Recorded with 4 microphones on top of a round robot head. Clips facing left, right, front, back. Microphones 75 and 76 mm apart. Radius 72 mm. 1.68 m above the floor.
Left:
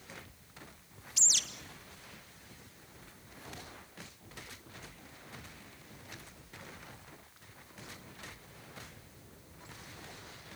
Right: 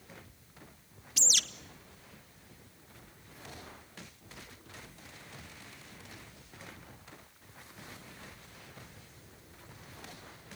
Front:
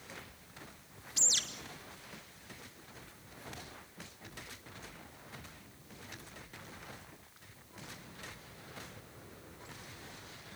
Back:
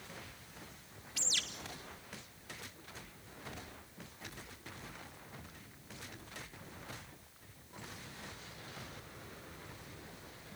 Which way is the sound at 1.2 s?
75° right.